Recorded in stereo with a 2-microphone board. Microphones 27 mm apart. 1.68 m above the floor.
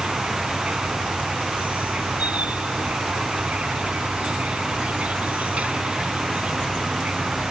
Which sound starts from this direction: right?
An insect, at 0.0 s.